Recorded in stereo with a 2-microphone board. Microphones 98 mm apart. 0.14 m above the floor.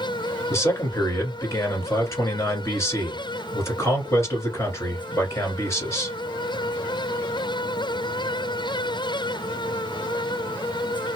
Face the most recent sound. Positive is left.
turn(degrees=30)  # may be behind; listen again after turning